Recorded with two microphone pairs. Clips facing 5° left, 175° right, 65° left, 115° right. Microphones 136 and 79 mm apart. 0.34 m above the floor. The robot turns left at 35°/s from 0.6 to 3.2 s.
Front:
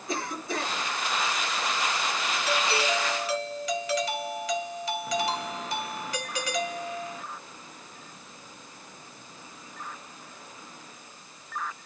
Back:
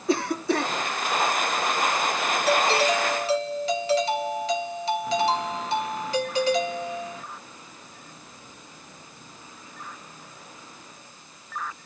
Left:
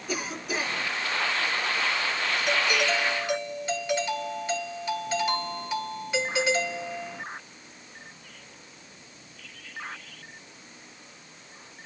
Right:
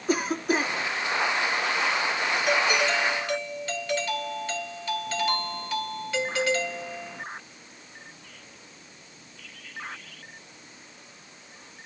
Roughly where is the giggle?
I don't hear a giggle.